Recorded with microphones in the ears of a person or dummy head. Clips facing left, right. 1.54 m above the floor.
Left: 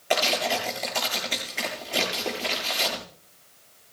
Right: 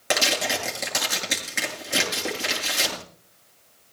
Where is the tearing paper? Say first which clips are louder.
Left 1 dB; 75° right (ahead or behind), 7 m.